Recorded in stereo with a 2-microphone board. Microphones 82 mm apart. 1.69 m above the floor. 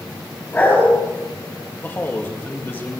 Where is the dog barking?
20° left (ahead or behind), 9.5 m.